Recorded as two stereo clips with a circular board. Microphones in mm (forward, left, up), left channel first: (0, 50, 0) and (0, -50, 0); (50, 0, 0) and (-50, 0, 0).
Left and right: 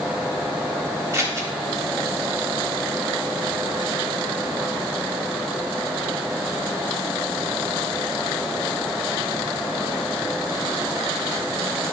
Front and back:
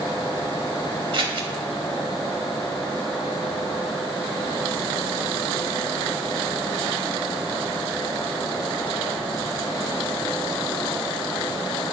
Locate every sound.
1.1 s scissors: 150° right, 1.3 m